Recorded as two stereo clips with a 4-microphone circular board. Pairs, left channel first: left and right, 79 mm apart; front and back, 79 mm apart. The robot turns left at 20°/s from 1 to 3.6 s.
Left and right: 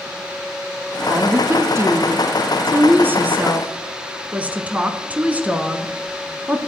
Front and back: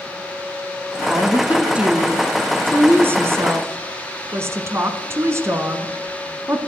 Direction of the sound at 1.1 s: 100° right.